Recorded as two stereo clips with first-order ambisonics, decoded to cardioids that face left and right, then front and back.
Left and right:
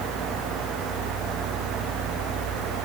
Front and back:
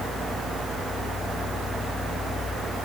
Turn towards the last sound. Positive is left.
No sound to turn to.